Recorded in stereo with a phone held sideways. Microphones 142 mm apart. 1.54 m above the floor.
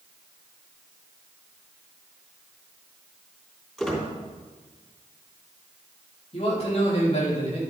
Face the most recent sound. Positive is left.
turn(degrees=45)  # may be behind; listen again after turning